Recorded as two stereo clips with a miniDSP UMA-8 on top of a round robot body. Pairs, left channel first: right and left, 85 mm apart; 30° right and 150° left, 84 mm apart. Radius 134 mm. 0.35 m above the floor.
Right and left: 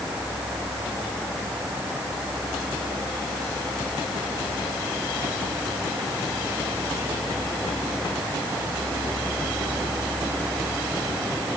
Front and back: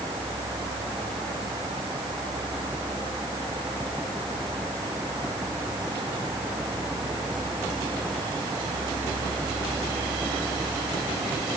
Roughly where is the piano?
No piano in this recording.